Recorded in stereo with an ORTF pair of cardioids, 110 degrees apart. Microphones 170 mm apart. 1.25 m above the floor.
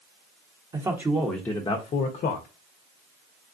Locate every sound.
0.7 s a man speaking: 20° right, 0.9 m; by 2.5 s 70° left, 0.8 m